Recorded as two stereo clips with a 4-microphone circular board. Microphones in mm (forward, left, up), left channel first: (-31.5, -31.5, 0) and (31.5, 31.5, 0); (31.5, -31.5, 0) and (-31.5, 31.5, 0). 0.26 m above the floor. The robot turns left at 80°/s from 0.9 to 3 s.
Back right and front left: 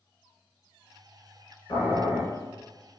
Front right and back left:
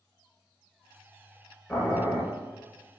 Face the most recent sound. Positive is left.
turn(degrees=135)